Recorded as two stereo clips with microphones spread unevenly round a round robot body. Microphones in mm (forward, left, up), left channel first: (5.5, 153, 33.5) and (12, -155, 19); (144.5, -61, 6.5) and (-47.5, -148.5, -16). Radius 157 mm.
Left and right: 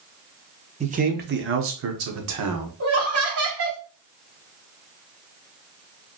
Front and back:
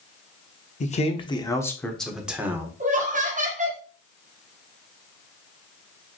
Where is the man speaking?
25° right, 1.0 m; by 2.7 s 80° right, 1.4 m.